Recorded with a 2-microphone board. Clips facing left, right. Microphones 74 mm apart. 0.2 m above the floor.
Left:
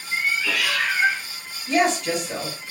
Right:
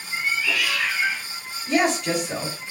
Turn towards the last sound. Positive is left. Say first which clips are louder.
# left 1 dB
turn(degrees=-5)  # may be behind; listen again after turning